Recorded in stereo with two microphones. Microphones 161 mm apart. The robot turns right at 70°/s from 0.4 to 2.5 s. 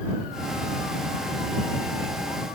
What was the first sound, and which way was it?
Only background noise.